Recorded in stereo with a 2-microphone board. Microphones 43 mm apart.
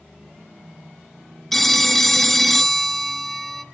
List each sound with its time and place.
1.5 s a phone ringing: 5° left (ahead or behind), 0.9 m